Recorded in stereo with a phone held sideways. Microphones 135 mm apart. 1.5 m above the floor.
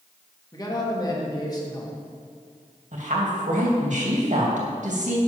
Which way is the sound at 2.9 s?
65° right (ahead or behind).